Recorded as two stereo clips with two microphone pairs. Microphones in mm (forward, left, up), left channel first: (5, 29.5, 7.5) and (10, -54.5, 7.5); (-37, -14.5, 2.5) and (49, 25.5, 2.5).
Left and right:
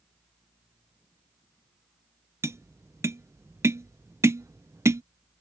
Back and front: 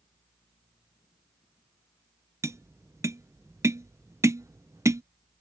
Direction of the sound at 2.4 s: 35° right.